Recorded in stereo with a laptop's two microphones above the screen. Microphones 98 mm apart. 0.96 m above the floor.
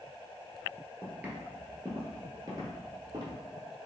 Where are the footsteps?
15° right (ahead or behind), 1.1 m; by 3.4 s 35° right (ahead or behind), 1.3 m.